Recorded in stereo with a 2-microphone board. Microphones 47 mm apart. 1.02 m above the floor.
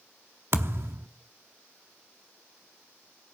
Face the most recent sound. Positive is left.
turn(degrees=-60)  # may be behind; listen again after turning